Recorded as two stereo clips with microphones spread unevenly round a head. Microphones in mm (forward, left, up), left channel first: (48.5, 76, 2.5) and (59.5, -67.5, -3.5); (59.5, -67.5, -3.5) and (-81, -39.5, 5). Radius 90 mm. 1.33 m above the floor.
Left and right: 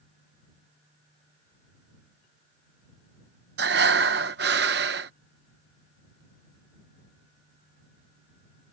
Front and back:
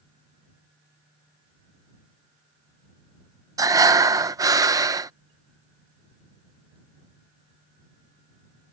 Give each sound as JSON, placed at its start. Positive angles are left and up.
{"t": 3.6, "sound": "breathing", "azimuth_deg": -125}